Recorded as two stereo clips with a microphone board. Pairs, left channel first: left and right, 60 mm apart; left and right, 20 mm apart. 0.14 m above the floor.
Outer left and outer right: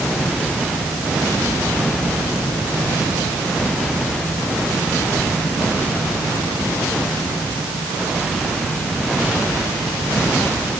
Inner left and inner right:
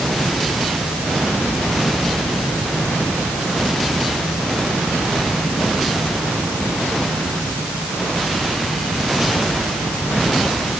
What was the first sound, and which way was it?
Only background noise.